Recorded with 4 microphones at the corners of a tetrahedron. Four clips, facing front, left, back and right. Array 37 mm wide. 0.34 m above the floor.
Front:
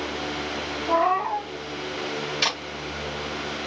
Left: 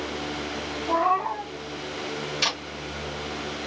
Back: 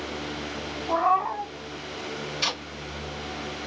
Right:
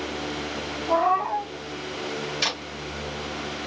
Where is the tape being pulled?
5° right, 1.1 m.